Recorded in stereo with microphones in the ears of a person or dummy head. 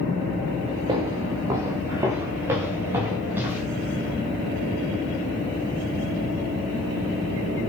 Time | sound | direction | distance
0.9 | footsteps | 20° right (ahead or behind) | 8 m